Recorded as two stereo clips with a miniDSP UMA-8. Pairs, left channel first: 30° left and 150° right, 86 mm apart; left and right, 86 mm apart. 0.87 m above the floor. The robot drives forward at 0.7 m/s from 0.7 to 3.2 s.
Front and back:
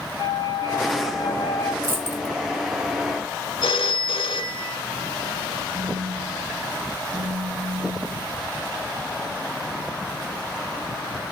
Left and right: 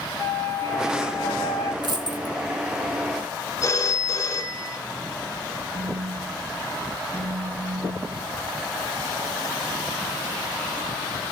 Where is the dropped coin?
90° right, 1.2 m; by 2.4 s 110° right, 1.3 m.